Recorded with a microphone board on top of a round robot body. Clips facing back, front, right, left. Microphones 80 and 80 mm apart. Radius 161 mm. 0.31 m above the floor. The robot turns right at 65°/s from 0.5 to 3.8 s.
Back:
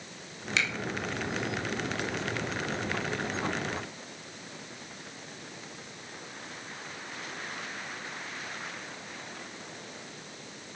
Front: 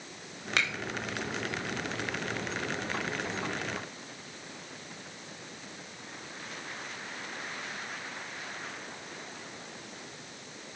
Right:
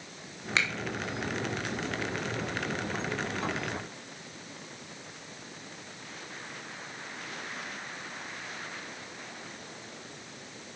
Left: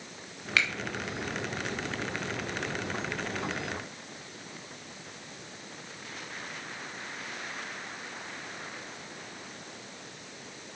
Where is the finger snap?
30° right, 2.5 m; by 0.7 s 25° right, 2.5 m.